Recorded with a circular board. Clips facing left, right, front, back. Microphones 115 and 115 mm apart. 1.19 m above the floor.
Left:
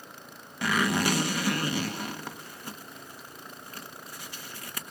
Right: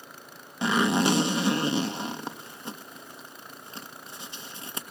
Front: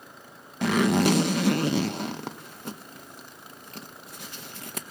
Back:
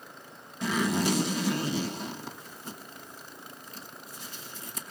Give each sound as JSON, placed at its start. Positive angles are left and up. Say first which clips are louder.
{"t": 0.6, "sound": "a zipper", "louder": "right 3 dB, front 6 dB", "azimuth_deg": -25, "distance_m": 1.1}